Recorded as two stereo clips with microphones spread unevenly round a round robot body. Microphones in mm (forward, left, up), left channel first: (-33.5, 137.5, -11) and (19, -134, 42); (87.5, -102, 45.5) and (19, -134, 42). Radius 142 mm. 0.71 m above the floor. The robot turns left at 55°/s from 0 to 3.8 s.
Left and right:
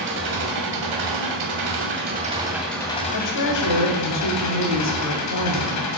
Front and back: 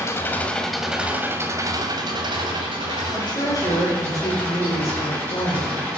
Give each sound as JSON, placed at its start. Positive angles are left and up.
{"t": 0.0, "sound": "an engine running", "azimuth_deg": -25, "distance_m": 2.5}
{"t": 3.1, "sound": "a woman speaking", "azimuth_deg": 110, "distance_m": 2.5}